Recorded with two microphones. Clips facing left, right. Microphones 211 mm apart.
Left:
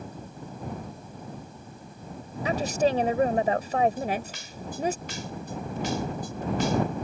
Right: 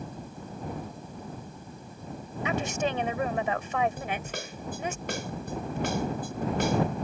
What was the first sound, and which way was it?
A woman speaking, 35° left (ahead or behind).